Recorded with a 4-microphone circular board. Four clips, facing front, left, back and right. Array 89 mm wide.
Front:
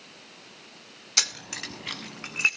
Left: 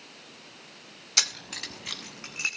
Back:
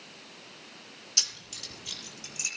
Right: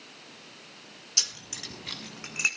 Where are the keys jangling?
45° left, 1.2 m; by 2.5 s 5° right, 2.5 m.